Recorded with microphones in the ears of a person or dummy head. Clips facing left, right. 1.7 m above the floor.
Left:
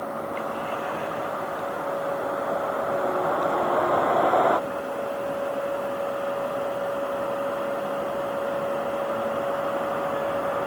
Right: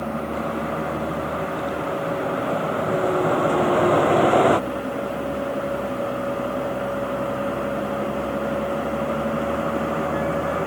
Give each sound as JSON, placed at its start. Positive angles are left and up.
{"t": 0.0, "sound": "a vehicle", "side_deg": -40}